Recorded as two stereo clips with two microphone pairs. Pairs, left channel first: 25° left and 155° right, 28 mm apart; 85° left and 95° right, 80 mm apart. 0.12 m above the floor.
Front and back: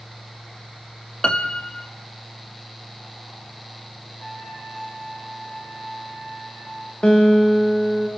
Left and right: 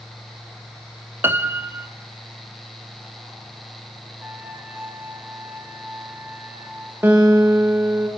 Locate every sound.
1.2 s a piano: 35° right, 1.4 m
4.2 s a trumpet: 25° right, 4.5 m
7.0 s a guitar: 30° right, 5 m